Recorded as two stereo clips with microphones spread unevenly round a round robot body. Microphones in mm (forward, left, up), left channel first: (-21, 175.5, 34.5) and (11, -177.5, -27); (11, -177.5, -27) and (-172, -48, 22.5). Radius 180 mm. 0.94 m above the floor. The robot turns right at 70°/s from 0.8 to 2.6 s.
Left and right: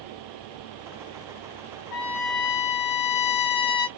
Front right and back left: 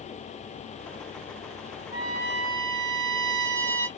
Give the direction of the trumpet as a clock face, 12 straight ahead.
10 o'clock.